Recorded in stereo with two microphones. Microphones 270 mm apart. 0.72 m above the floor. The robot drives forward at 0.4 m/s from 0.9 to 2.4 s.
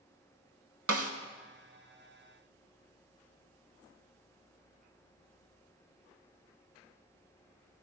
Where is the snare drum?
60° right (ahead or behind), 0.7 m; by 1.1 s 55° right (ahead or behind), 0.7 m.